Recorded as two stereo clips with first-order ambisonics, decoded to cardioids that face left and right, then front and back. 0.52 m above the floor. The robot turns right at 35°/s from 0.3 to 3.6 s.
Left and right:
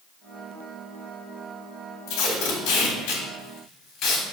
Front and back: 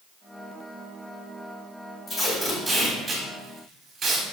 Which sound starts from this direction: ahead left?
Tape being pulled, at 2.1 s.